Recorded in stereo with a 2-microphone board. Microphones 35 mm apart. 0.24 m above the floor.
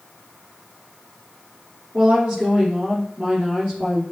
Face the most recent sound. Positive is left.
turn(degrees=-40)  # may be behind; listen again after turning